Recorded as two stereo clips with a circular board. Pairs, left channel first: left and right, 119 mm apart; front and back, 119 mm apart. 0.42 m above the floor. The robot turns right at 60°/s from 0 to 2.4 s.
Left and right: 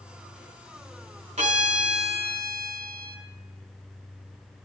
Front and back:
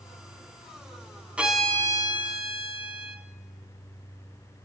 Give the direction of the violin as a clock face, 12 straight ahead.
3 o'clock.